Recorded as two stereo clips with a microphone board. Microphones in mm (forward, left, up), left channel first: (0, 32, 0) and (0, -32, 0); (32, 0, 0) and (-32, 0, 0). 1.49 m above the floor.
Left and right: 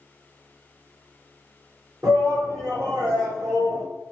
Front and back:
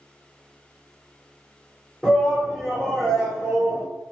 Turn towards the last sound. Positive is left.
turn(degrees=-120)